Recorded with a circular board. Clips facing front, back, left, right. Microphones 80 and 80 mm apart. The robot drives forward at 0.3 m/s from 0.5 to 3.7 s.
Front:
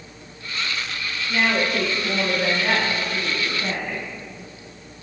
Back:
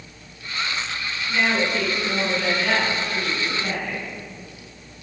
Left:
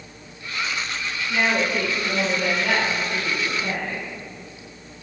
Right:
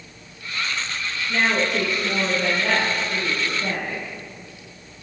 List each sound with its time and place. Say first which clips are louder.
1.3 s a woman speaking: front 1 dB, even; 50° right, 3.5 m; by 4.1 s 60° right, 3 m